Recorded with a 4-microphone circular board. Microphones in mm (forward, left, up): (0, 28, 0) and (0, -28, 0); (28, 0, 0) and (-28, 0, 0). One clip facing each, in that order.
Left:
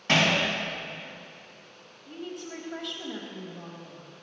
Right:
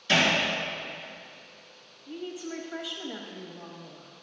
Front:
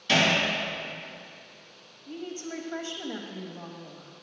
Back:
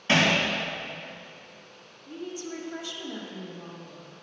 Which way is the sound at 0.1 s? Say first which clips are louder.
Even, back 1 dB; 125° left.